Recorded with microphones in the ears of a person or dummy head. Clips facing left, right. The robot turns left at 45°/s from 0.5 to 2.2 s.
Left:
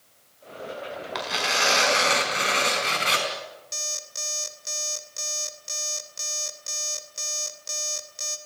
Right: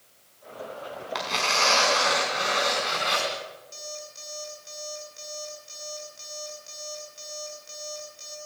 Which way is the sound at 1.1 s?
Straight behind.